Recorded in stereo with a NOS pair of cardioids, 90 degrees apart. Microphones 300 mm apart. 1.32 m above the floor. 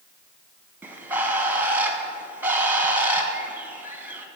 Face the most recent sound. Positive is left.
turn(degrees=-5)